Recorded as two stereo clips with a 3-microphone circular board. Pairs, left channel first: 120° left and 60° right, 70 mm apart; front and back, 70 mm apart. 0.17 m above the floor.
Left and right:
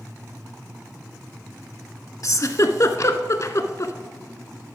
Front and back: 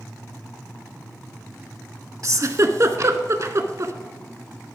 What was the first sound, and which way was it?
A giggle, 150° left.